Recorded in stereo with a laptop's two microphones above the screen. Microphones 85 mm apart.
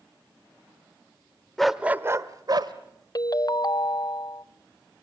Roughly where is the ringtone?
Left.